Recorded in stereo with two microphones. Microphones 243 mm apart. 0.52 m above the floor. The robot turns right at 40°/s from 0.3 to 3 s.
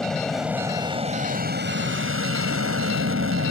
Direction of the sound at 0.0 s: Straight behind.